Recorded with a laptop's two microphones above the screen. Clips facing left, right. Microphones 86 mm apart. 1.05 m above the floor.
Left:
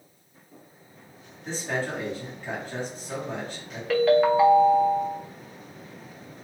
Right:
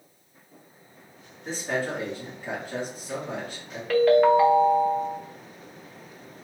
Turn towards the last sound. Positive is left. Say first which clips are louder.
# right 2 dB
turn(degrees=0)  # may be behind; listen again after turning